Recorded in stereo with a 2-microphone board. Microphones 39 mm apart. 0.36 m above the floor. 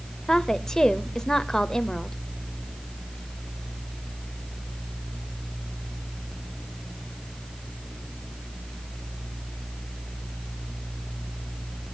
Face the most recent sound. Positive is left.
turn(degrees=15)  # may be behind; listen again after turning